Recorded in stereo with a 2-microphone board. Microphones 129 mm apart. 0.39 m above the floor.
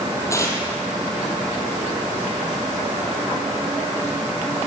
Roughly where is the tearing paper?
Left.